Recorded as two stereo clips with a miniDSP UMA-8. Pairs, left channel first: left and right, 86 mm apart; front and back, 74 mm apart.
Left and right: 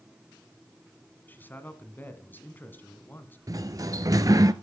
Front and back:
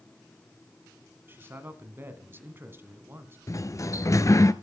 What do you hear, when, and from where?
1.3 s a man speaking: 140° left, 1.4 m
3.5 s a sliding door: 45° right, 0.6 m